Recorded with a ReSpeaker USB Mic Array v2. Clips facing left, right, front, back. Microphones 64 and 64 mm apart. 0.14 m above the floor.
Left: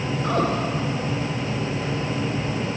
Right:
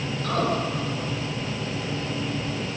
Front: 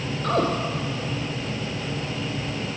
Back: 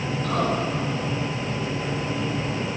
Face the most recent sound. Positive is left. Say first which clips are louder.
# left 2 dB, front 2 dB
turn(degrees=30)